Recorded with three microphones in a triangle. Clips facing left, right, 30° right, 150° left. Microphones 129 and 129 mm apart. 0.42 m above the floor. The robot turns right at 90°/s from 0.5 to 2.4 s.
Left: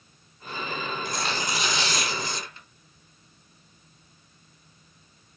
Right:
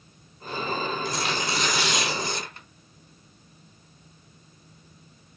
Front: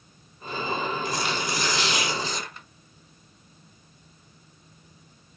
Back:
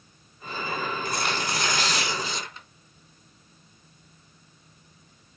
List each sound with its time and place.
1.1 s tearing paper: 120° left, 3 m; by 2.7 s 120° right, 3 m